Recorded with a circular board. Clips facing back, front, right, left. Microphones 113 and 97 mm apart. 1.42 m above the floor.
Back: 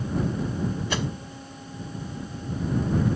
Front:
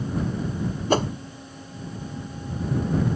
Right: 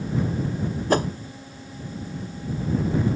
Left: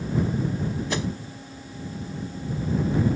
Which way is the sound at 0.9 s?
45° right.